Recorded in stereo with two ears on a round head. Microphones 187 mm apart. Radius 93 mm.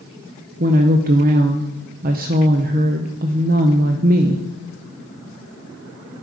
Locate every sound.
0.6 s a woman speaking: 45° right (ahead or behind), 0.6 m